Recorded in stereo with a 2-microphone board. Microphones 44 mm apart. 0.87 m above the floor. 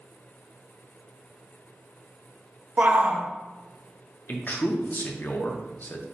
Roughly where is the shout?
Right.